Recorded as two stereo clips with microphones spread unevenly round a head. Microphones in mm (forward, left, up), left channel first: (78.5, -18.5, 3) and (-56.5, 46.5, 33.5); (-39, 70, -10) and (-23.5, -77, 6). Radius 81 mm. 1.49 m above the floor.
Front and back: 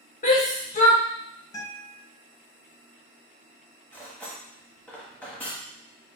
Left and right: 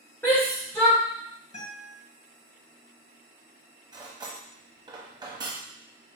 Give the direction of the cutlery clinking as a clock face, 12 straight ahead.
4 o'clock.